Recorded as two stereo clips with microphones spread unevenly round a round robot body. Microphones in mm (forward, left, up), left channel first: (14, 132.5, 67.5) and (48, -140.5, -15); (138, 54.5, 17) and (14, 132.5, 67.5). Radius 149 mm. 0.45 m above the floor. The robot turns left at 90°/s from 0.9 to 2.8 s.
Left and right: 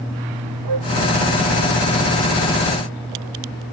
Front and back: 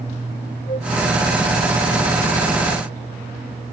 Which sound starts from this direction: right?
A flute, at 0.7 s.